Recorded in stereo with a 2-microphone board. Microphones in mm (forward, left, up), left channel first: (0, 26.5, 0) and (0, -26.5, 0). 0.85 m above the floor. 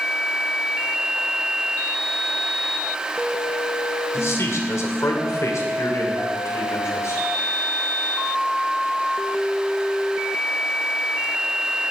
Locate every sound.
4.1 s a man speaking: 60° left (ahead or behind), 2.5 m; by 7.2 s 80° left, 3.5 m